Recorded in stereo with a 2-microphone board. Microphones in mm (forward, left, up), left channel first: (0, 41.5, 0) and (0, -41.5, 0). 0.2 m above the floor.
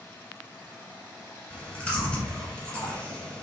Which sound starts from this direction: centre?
Chewing, at 1.5 s.